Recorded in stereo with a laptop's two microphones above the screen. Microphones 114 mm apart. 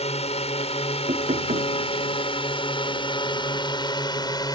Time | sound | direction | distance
0.0 | a drone | 70° left (ahead or behind) | ?
1.1 | knocking | 70° right (ahead or behind) | ?